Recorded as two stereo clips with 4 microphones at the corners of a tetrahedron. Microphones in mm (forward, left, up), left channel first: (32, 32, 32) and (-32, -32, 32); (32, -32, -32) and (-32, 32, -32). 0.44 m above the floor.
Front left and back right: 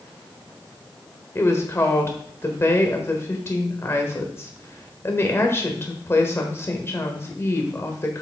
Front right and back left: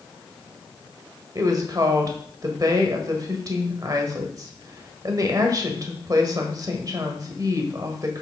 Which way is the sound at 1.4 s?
100° left.